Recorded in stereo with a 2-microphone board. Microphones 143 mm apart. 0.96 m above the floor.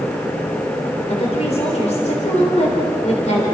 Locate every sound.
1.1 s a woman speaking: 50° left (ahead or behind), 3.5 m